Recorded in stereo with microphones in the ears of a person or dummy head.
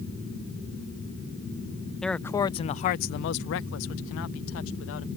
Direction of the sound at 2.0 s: Centre (ahead or behind).